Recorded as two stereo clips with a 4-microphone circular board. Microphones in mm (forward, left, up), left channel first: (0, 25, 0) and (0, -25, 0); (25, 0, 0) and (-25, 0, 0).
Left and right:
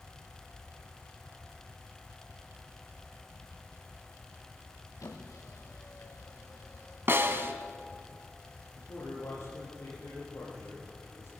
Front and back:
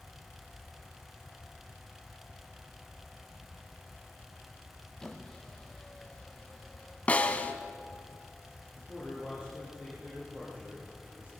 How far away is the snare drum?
About 1.4 m.